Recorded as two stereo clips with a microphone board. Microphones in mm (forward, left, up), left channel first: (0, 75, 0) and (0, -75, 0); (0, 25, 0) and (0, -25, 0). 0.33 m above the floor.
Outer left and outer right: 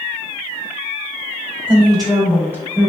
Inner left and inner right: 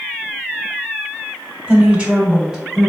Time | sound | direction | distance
1.7 | a woman speaking | 35° right (ahead or behind) | 1.5 m